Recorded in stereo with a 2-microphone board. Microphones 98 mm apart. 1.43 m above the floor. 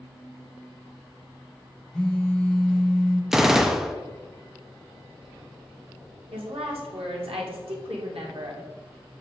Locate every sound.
1.9 s a phone buzzing: 10° left (ahead or behind), 0.8 m
3.3 s a gunshot: 5° right (ahead or behind), 0.5 m
6.3 s a woman speaking: 75° right (ahead or behind), 1.9 m